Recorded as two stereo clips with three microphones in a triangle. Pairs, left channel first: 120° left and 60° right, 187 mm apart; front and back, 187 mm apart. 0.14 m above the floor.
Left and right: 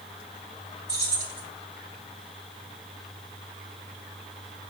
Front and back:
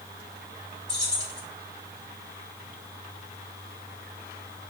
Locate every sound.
0.9 s keys jangling: 115° right, 1.9 m